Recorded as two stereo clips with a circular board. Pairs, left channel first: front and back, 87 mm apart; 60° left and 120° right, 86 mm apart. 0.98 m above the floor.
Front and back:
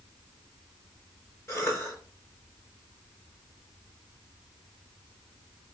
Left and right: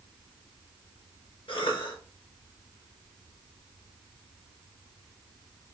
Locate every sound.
1.5 s a cough: 60° left, 3.5 m